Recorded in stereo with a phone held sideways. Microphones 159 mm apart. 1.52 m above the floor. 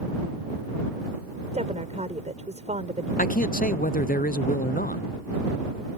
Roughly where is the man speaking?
Left.